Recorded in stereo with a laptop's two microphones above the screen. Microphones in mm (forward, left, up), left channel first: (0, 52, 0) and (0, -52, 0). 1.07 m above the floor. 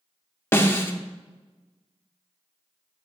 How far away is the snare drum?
About 0.8 m.